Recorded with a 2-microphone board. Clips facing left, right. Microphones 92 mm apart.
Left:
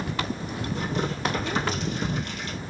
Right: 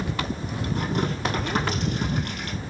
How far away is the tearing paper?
About 2.5 m.